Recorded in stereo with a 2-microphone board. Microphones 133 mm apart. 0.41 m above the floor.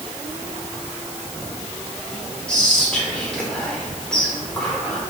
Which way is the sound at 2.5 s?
5° left (ahead or behind).